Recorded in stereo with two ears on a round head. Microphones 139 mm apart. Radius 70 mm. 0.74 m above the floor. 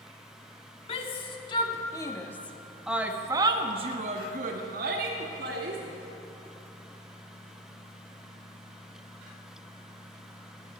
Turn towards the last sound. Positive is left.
turn(degrees=-70)  # may be behind; listen again after turning